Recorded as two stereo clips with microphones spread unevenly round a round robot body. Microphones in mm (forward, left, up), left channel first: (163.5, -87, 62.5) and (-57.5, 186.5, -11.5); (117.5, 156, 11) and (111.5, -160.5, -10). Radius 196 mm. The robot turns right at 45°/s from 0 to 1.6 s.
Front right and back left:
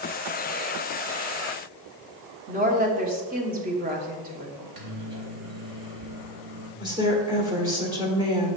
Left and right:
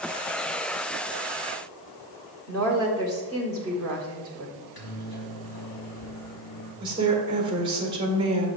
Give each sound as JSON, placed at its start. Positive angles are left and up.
{"t": 2.5, "sound": "a woman speaking", "azimuth_deg": 170, "distance_m": 1.3}
{"t": 4.6, "sound": "a microwave", "azimuth_deg": 110, "distance_m": 2.5}
{"t": 6.8, "sound": "a woman speaking", "azimuth_deg": -165, "distance_m": 1.4}